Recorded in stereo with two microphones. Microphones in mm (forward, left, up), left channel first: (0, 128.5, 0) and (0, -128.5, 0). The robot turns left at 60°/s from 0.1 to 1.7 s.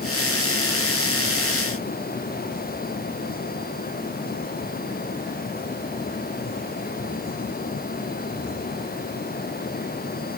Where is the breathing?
I don't hear breathing.